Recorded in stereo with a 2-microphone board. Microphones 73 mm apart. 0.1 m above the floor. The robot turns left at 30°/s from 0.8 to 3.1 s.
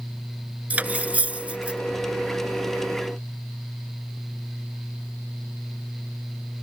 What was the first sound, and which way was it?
Cutlery clinking, 20° right (ahead or behind).